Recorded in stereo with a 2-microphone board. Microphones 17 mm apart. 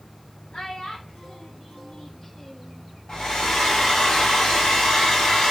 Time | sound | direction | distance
0.5 | a child speaking | 55° left (ahead or behind) | 1.5 m
3.1 | a hair dryer | 60° left (ahead or behind) | 1.4 m